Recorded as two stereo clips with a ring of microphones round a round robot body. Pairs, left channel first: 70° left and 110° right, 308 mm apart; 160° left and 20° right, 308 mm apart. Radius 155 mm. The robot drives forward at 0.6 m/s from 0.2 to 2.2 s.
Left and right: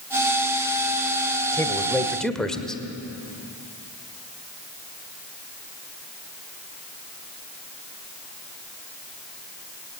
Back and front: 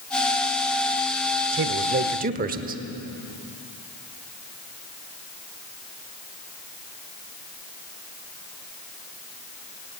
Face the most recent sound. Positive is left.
turn(degrees=-20)